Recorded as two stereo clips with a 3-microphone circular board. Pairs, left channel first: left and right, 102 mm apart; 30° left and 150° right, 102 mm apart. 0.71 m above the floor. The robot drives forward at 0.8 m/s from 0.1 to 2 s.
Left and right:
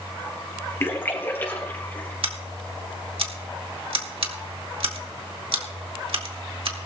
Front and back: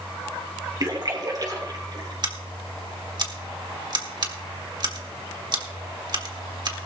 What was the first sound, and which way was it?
A splash, 155° left.